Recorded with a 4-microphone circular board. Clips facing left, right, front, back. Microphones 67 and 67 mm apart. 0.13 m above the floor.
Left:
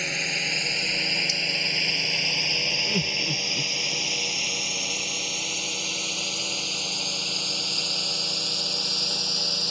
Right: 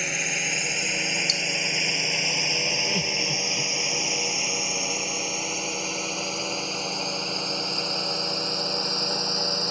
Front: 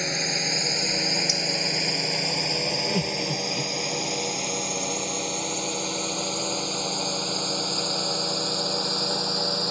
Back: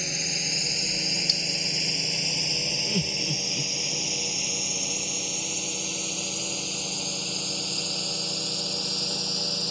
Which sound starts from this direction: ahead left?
Laughter, at 2.9 s.